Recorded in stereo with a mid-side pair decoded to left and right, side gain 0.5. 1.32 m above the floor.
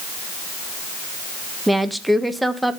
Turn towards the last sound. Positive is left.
turn(degrees=-10)